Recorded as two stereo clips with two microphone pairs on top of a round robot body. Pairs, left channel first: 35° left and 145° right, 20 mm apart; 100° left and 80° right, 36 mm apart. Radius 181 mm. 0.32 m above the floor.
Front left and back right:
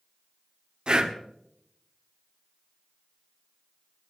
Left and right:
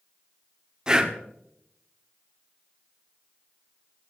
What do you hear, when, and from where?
0.9 s breathing: 145° right, 1.7 m